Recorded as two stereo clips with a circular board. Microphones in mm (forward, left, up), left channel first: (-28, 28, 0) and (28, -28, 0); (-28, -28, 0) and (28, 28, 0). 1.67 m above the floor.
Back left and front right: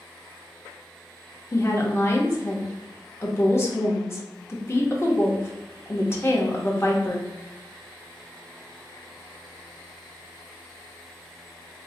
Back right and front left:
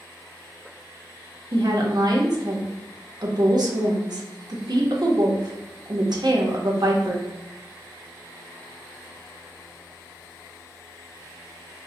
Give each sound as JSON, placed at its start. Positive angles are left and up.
{"t": 1.5, "sound": "a woman speaking", "azimuth_deg": 75, "distance_m": 0.8}